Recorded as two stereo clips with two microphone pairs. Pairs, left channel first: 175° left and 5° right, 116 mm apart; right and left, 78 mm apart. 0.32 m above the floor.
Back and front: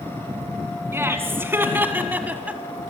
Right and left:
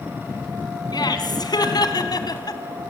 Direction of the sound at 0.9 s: 75° right.